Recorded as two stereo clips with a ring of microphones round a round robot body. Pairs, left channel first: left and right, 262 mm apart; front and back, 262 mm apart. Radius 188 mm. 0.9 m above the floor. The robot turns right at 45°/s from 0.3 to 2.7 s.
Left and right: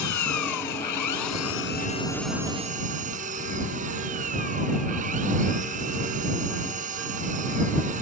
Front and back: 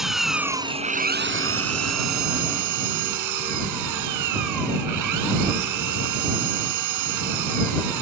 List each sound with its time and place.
0.0 s an engine running: 90° left; by 8.0 s 160° right